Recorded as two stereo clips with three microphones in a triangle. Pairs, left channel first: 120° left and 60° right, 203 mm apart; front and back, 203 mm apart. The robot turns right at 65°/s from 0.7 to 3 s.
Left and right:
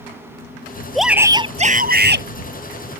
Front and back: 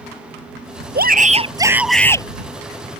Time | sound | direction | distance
0.9 | a shout | 155° right | ?